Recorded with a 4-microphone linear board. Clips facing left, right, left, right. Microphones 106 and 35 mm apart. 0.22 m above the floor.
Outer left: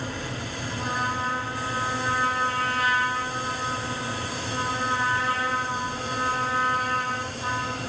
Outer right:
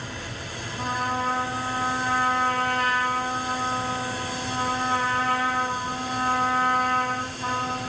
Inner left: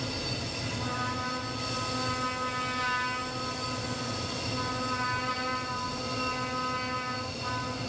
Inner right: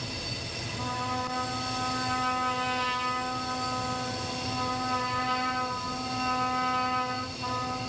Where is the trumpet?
50° right (ahead or behind), 7.5 m.